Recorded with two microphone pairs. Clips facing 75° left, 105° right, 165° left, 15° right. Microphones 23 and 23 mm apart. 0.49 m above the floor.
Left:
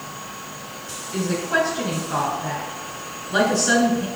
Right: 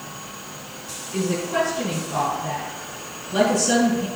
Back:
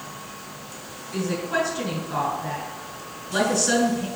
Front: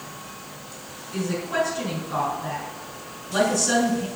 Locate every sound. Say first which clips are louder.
1.1 s a woman speaking: left 1 dB, even; 85° left, 2.5 m